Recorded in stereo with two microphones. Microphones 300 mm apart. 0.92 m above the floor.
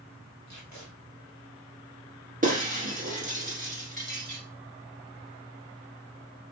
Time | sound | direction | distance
0.5 | tape being pulled | 65° left (ahead or behind) | 1.7 m
2.4 | breaking glass | 30° right (ahead or behind) | 1.5 m